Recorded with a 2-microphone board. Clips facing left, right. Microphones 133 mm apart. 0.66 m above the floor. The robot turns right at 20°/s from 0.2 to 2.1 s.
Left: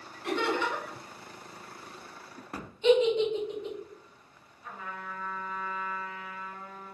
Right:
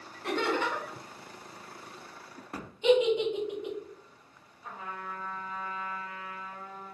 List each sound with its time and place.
0.2 s laughter: 40° right (ahead or behind), 1.4 m; by 1.0 s 35° right (ahead or behind), 1.4 m
2.8 s a giggle: 15° right (ahead or behind), 0.7 m
4.6 s a trumpet: 30° right (ahead or behind), 1.7 m